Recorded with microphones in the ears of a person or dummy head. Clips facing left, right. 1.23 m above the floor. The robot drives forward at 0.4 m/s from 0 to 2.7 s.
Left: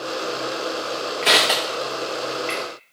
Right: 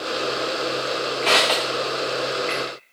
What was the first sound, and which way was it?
Crushing, 15° left (ahead or behind).